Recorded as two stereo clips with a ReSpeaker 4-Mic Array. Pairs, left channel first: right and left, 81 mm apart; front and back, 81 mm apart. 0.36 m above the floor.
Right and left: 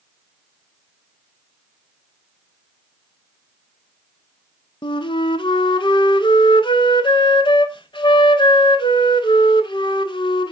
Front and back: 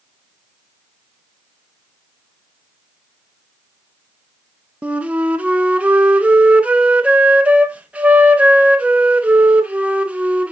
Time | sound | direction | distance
4.8 | a flute | 105° right | 0.6 m